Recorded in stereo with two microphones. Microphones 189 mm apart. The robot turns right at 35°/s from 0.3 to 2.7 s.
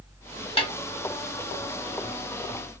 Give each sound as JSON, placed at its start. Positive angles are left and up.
{"t": 0.6, "sound": "a snare drum", "side_deg": 30, "distance_m": 1.0}